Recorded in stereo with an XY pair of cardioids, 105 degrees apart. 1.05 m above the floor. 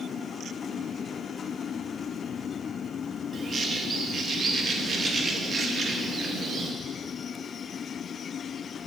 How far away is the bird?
About 1.0 m.